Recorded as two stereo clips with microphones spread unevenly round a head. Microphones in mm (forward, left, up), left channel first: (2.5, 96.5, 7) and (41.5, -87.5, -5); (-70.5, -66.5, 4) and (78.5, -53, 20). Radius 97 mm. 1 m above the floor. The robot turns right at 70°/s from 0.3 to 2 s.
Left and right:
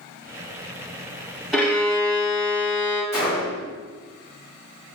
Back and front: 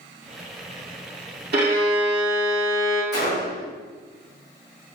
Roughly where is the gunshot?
Behind.